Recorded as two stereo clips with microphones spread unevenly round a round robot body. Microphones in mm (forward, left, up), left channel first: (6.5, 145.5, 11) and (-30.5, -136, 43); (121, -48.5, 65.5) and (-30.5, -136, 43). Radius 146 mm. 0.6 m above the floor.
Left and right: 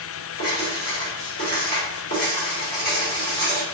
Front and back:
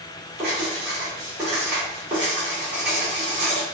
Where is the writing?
135° left, 2.0 m.